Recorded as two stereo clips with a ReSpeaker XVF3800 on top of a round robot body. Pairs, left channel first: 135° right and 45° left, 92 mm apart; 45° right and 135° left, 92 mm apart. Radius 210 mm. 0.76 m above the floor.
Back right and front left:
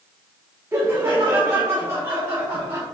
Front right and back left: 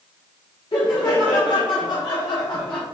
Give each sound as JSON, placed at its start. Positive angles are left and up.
{"t": 0.7, "sound": "laughter", "azimuth_deg": -15, "distance_m": 1.4}